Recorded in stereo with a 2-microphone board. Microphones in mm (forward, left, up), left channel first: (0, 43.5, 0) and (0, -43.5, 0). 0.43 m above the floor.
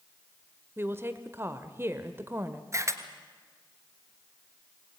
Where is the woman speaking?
30° right (ahead or behind), 1.1 m.